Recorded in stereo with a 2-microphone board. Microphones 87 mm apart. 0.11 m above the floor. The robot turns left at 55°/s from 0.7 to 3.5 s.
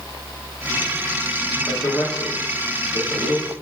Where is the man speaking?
55° left (ahead or behind), 3 m; by 3.5 s 40° right (ahead or behind), 3 m.